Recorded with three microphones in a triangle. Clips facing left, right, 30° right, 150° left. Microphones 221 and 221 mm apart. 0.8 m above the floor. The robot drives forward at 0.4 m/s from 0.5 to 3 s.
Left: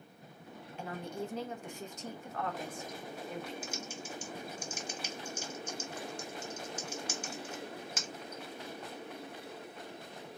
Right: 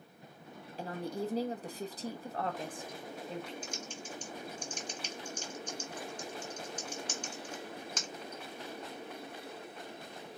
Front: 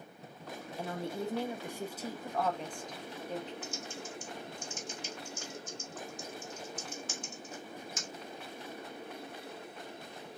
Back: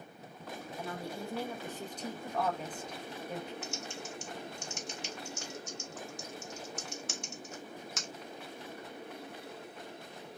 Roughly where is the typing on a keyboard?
Behind.